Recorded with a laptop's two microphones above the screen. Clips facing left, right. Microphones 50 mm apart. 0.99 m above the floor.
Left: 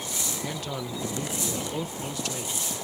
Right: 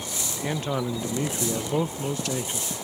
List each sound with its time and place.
0.4 s a man speaking: 35° right (ahead or behind)